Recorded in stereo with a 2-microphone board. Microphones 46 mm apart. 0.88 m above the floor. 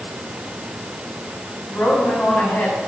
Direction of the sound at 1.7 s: 45° left (ahead or behind).